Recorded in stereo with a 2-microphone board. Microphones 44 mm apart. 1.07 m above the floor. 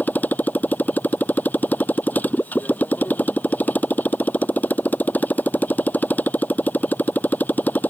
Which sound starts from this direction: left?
A motorcycle, at 0.0 s.